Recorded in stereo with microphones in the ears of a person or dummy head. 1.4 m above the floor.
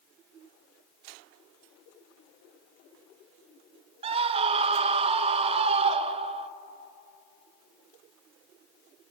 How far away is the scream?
About 0.9 m.